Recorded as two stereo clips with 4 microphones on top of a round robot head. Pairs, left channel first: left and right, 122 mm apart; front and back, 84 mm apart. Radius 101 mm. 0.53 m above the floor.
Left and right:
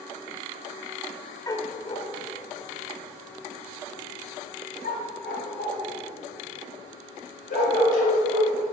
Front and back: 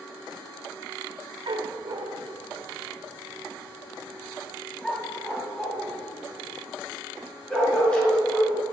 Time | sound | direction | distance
1.5 | a dog barking | 155° left | 0.7 m